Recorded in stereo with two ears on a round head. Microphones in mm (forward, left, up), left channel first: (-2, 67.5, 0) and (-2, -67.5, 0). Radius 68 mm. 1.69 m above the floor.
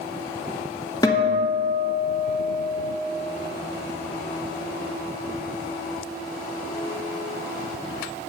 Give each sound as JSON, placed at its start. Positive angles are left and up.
{"t": 1.0, "sound": "a guitar", "side_deg": 25, "distance_m": 1.0}